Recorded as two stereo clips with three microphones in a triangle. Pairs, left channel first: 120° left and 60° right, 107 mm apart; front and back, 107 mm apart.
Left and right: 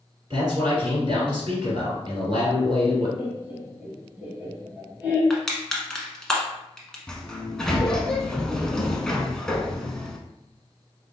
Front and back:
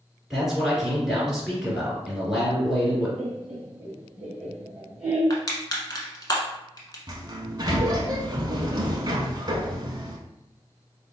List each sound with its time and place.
0.3 s a man speaking: 95° right, 2 m
3.2 s laughter: 110° right, 1.1 m
5.3 s crushing: 35° left, 1.0 m
7.1 s a sliding door: 160° right, 0.6 m